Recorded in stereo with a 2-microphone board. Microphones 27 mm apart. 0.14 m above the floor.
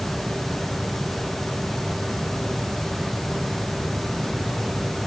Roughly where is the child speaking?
I don't hear a child speaking.